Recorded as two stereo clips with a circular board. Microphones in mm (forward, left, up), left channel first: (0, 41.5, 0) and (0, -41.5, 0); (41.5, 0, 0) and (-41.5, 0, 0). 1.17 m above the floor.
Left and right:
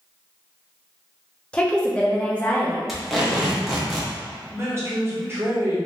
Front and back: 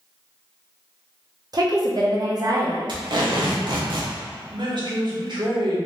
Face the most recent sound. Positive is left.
turn(degrees=-150)